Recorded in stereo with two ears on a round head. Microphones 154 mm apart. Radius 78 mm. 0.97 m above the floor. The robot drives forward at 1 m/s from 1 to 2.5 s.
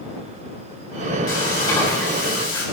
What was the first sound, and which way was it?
Frying, 20° left (ahead or behind).